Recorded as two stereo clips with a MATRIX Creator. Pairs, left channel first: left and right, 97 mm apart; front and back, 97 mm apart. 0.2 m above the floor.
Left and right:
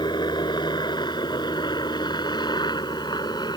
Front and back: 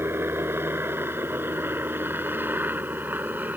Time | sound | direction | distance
0.0 | a helicopter | 115° left | ?